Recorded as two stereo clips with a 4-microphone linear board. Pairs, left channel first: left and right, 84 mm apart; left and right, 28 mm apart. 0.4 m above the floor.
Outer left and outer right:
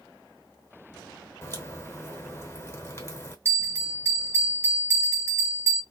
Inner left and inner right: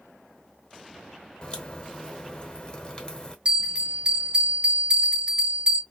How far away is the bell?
About 1.3 m.